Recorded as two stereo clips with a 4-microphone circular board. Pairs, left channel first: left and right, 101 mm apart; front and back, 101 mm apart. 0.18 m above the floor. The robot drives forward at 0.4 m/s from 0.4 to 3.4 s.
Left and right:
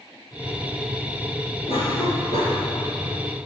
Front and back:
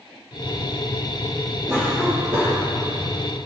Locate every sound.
1.7 s a cough: 120° left, 4.5 m